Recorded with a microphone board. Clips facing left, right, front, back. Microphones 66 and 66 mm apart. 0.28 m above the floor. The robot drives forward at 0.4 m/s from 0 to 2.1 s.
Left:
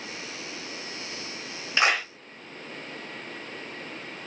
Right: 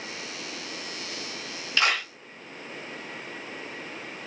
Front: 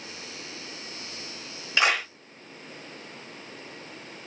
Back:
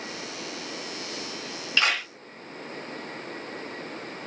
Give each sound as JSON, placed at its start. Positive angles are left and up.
{"t": 1.8, "sound": "a clap", "azimuth_deg": 50, "distance_m": 0.9}